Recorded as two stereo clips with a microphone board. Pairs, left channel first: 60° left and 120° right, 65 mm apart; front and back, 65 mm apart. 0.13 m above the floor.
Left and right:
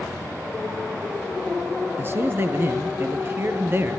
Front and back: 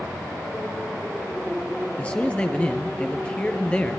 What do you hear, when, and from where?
2.0 s a man speaking: 70° right, 3 m